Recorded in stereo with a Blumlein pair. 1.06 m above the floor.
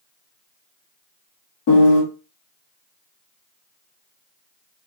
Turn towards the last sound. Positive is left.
turn(degrees=50)